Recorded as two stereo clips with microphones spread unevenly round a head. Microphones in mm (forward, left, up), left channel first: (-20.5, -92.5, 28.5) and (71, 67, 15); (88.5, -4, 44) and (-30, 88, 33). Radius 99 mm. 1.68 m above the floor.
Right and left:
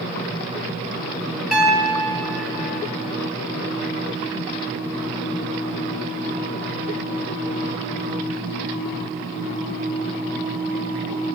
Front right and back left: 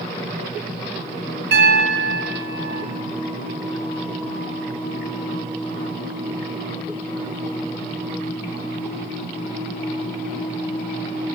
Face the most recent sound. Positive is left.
turn(degrees=150)